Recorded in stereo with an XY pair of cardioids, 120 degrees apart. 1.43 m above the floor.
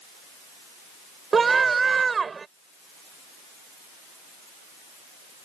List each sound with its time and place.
1.3 s a scream: 30° right